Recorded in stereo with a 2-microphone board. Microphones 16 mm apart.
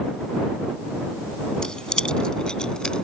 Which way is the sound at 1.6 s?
50° left (ahead or behind).